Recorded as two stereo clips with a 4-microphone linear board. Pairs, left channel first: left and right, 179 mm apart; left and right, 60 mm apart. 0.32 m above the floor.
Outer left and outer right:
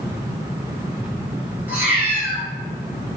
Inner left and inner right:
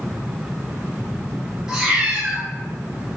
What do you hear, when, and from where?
1.7 s a cat meowing: 10° right (ahead or behind), 3 m